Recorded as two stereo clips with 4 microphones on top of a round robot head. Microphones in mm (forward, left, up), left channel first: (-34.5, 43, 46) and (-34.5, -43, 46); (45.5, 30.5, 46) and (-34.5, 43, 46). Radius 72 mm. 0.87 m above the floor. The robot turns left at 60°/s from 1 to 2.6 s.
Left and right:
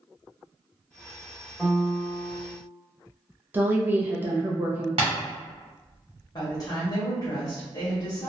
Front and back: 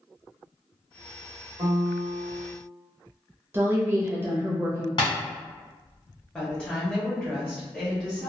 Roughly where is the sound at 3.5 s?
Behind right.